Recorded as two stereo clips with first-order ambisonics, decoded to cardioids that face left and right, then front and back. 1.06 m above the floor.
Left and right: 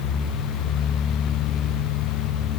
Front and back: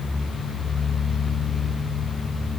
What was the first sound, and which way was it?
Only background noise.